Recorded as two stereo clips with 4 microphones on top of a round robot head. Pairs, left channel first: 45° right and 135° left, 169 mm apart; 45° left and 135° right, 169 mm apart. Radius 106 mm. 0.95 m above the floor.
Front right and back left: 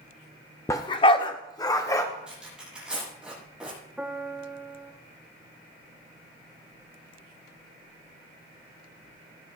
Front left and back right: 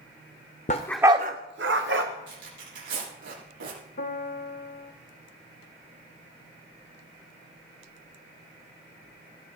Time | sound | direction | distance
0.7 | a dog barking | 25° left | 0.6 m
2.3 | tearing paper | 140° right | 8 m
4.0 | a piano | 50° left | 1.6 m